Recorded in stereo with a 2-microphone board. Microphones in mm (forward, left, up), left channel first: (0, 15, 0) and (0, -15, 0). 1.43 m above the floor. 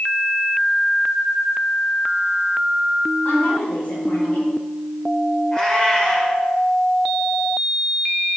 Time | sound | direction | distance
3.2 | a woman speaking | 75° left (ahead or behind) | 3.5 m
5.5 | a cat meowing | 25° left (ahead or behind) | 1.9 m